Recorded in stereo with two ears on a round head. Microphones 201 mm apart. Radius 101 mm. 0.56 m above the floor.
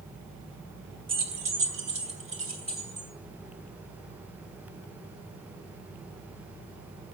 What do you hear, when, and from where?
1.1 s keys jangling: 25° right (ahead or behind), 0.7 m